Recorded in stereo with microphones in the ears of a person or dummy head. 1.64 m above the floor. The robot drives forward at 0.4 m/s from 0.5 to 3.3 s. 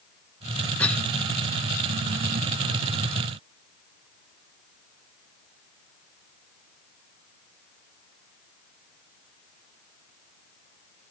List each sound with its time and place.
0.8 s a cough: 10° left (ahead or behind), 0.9 m